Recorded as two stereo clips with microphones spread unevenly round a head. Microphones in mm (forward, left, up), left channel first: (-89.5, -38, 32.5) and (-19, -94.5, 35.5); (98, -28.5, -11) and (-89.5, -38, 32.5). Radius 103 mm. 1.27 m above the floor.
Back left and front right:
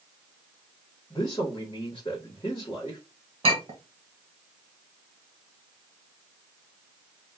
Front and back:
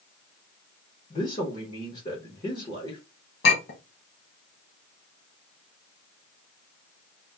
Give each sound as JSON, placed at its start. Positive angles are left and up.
{"t": 1.1, "sound": "a man speaking", "azimuth_deg": 70, "distance_m": 0.9}
{"t": 3.4, "sound": "a clink", "azimuth_deg": -35, "distance_m": 1.2}